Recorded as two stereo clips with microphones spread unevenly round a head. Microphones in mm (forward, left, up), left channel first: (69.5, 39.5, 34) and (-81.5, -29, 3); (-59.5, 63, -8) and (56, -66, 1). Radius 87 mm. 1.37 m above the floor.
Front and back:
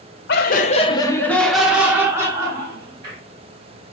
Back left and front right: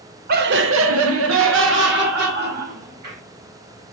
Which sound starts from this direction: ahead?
Laughter, at 0.3 s.